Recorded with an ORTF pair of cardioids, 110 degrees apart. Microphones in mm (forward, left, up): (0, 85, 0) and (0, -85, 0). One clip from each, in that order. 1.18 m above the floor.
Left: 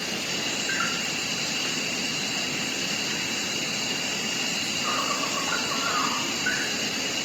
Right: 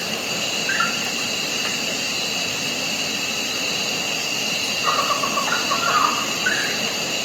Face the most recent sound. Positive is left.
turn(degrees=-55)